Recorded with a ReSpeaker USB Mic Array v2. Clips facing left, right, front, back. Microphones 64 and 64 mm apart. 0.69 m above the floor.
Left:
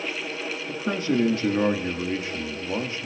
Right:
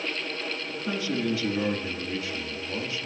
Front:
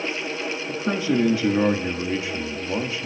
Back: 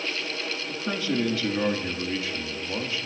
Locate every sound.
0.7 s a man speaking: 55° left, 1.3 m